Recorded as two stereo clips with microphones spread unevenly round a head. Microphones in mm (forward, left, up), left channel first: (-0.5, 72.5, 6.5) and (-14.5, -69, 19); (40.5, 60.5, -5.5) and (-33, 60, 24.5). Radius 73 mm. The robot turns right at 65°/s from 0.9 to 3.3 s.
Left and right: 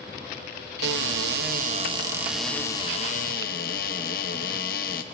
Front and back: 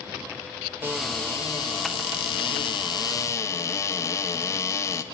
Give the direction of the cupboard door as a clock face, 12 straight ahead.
3 o'clock.